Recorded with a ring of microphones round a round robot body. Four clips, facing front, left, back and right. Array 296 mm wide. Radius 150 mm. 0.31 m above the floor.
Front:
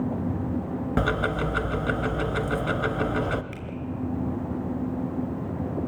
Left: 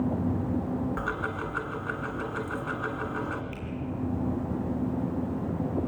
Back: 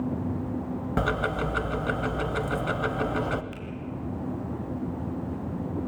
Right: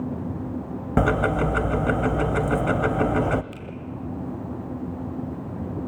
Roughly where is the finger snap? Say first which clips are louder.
Even, front 1 dB; ahead right.